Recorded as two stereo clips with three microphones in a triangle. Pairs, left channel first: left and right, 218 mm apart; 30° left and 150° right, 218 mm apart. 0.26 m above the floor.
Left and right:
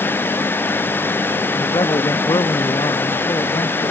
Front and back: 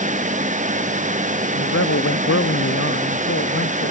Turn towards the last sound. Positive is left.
turn(degrees=20)